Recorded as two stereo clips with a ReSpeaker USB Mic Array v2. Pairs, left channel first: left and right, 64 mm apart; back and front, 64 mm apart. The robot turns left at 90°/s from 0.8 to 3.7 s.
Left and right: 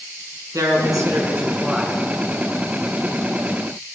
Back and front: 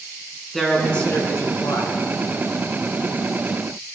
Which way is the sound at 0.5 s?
95° right.